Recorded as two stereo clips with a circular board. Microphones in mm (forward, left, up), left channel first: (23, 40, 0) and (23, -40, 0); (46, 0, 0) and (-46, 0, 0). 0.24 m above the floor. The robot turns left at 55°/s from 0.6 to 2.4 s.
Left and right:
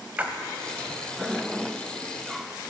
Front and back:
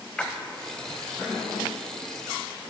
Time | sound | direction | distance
0.2 | a splash | 60° right | 0.8 m